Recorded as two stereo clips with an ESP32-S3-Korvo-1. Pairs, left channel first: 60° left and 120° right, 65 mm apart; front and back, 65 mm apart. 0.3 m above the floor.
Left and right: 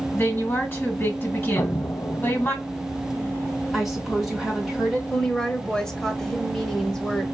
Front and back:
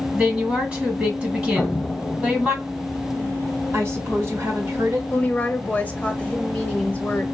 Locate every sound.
0.1 s a woman speaking: 115° left, 2.5 m
1.6 s an explosion: 90° left, 0.5 m
3.7 s a woman speaking: 155° left, 1.9 m
5.1 s a woman speaking: 5° left, 0.9 m